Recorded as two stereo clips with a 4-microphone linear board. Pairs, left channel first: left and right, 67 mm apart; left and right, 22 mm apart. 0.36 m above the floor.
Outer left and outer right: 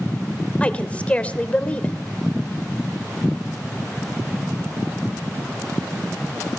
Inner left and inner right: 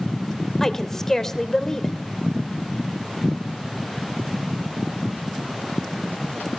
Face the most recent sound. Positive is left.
turn(degrees=20)  # may be behind; listen again after turning